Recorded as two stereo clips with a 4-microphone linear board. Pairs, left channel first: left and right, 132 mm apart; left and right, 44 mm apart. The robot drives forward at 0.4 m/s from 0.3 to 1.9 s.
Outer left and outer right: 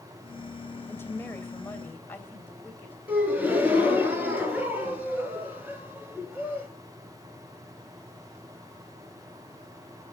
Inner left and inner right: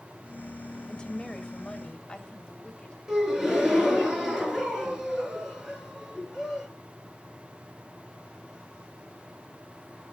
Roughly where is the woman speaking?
Centre.